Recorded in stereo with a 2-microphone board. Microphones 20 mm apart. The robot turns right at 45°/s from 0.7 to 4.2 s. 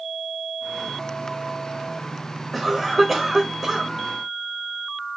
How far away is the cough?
About 0.9 m.